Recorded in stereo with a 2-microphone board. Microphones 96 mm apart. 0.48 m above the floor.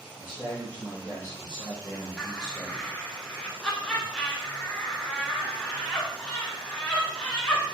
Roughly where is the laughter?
Centre.